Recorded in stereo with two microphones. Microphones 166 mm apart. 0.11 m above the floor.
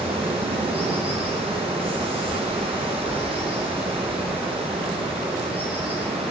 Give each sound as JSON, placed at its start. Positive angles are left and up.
{"t": 0.0, "sound": "running water", "side_deg": -35, "distance_m": 8.0}